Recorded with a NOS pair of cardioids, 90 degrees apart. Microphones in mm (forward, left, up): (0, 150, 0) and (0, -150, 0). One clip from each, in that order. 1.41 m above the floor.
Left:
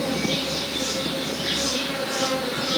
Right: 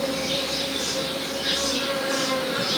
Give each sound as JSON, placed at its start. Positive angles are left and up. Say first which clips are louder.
{"t": 0.0, "sound": "an insect", "louder": "even", "azimuth_deg": -35, "distance_m": 1.7}